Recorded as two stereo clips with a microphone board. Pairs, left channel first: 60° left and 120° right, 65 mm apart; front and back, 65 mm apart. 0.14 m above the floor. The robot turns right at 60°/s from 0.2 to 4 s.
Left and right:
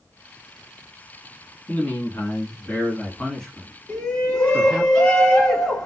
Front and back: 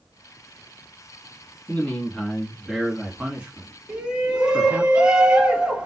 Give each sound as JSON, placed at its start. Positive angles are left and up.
{"t": 1.7, "sound": "a man speaking", "azimuth_deg": 30, "distance_m": 1.2}
{"t": 3.9, "sound": "a shout", "azimuth_deg": 110, "distance_m": 1.2}